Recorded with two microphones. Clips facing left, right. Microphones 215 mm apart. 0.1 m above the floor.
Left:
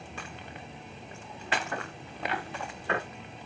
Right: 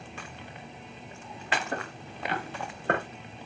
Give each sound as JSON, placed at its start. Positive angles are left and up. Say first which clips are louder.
{"t": 1.7, "sound": "footsteps", "louder": "right 2 dB", "side_deg": -35, "distance_m": 3.0}